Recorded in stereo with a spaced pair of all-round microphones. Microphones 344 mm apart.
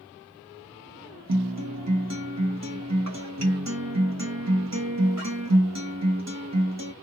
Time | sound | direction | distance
1.3 | a guitar | 50° right (ahead or behind) | 0.9 m